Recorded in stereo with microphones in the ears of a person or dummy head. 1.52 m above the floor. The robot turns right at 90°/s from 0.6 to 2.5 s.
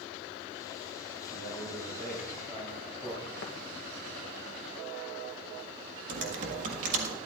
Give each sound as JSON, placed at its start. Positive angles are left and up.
{"t": 1.3, "sound": "a man speaking", "azimuth_deg": -125, "distance_m": 3.5}
{"t": 3.4, "sound": "tapping", "side_deg": 60, "distance_m": 1.2}
{"t": 6.1, "sound": "typing on a keyboard", "side_deg": -45, "distance_m": 1.5}